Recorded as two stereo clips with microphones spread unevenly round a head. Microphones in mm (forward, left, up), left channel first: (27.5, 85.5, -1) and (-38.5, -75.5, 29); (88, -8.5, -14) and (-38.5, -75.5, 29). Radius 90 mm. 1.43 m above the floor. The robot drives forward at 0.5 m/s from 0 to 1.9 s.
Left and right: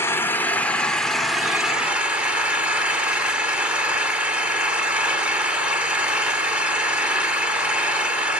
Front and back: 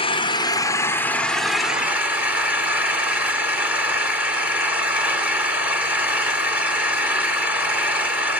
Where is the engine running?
15° right, 1.1 m; by 8.4 s 165° right, 1.1 m.